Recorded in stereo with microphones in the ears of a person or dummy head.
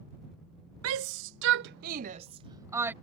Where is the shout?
85° right; by 2.9 s 5° right (ahead or behind).